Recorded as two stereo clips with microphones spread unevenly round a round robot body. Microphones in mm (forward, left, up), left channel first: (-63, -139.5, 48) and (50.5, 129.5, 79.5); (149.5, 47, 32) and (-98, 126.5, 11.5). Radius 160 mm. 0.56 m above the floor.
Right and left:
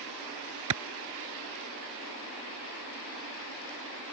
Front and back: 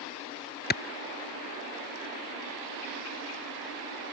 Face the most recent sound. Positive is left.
turn(degrees=35)